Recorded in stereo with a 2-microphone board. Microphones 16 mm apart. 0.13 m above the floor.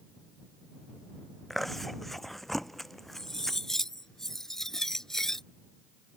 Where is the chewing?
15° left (ahead or behind).